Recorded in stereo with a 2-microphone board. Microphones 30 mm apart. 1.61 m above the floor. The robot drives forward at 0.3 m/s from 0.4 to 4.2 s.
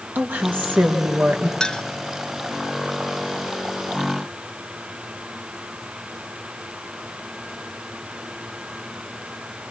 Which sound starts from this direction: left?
A clink, at 1.6 s.